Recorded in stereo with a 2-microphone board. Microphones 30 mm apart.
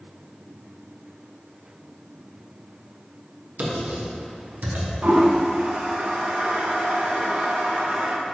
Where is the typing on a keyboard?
70° right (ahead or behind), 1.2 m.